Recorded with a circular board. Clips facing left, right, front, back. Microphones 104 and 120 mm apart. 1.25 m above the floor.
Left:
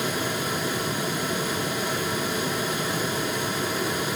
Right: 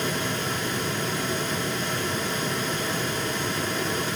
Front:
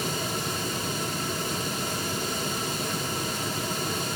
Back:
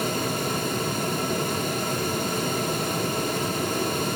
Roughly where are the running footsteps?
I don't hear running footsteps.